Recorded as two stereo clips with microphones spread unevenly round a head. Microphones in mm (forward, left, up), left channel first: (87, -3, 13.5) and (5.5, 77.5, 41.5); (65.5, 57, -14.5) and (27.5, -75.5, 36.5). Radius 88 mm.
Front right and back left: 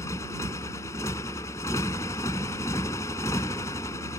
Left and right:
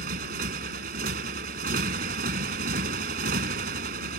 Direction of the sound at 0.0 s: 125° right.